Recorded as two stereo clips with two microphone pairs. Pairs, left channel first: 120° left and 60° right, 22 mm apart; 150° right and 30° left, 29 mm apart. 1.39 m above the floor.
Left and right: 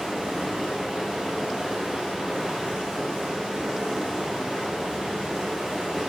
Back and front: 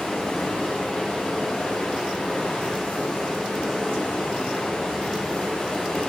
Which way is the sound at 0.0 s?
95° right.